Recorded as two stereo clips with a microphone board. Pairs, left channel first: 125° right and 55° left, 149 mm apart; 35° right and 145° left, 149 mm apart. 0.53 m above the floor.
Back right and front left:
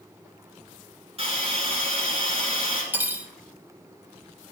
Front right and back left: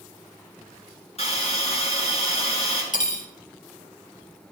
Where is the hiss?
10° left, 3.5 m.